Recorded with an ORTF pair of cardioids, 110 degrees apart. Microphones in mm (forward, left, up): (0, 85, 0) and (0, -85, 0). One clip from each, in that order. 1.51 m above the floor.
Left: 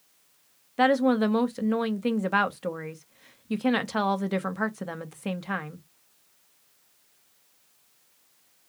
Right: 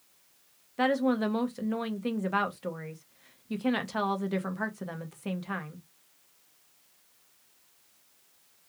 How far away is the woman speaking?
About 0.7 m.